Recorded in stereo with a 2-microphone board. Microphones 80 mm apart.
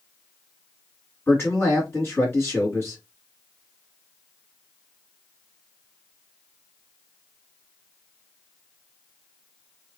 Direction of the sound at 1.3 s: 35° left (ahead or behind).